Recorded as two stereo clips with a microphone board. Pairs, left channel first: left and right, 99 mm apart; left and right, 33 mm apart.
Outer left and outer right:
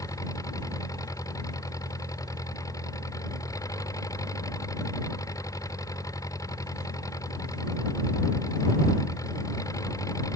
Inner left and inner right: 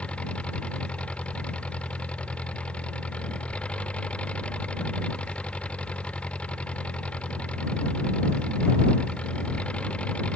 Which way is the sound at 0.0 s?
35° left (ahead or behind).